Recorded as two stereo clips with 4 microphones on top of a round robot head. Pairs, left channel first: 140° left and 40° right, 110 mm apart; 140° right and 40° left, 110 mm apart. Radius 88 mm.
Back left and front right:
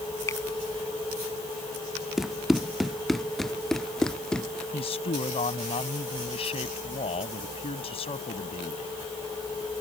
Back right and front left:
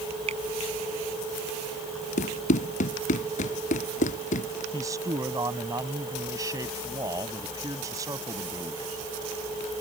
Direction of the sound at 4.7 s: 105° left.